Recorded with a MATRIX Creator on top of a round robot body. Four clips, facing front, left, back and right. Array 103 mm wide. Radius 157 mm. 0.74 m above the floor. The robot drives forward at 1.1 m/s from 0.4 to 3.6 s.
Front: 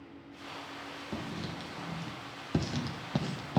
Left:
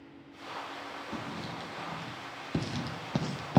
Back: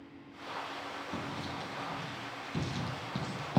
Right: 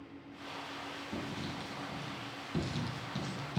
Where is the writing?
15° left, 3 m; by 3.6 s 95° left, 0.7 m.